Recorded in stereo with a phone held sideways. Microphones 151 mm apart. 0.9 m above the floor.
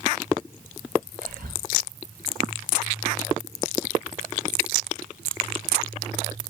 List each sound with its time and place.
1.2 s whispering: 70° right (ahead or behind), 1.8 m